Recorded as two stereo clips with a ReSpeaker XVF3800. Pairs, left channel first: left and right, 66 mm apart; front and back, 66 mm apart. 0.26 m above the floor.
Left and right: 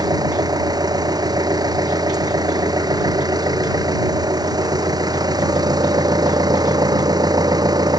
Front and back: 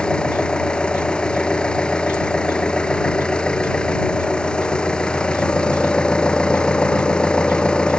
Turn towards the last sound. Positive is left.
turn(degrees=-80)